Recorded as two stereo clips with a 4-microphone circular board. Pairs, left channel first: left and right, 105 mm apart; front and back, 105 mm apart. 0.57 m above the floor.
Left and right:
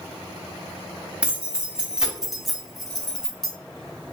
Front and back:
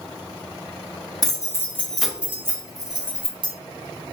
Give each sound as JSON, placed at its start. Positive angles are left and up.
{"t": 1.2, "sound": "keys jangling", "azimuth_deg": -15, "distance_m": 0.7}